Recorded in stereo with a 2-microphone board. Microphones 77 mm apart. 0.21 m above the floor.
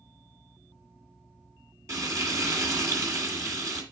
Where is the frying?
45° right (ahead or behind), 1.8 m.